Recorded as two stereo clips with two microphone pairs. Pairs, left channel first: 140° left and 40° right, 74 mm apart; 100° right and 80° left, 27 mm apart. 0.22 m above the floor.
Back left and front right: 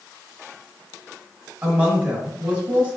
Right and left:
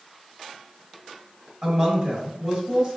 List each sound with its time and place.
1.6 s a woman speaking: 25° left, 1.5 m